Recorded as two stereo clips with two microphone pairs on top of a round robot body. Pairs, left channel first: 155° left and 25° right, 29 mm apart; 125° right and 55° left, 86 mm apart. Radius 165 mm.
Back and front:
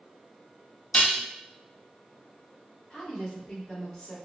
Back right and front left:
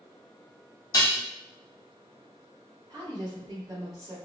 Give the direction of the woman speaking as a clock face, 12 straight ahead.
9 o'clock.